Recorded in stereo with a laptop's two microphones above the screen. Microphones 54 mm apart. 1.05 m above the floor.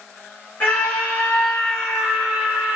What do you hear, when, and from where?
0.6 s a scream: 40° left (ahead or behind), 1.6 m; by 2.8 s 30° right (ahead or behind), 1.0 m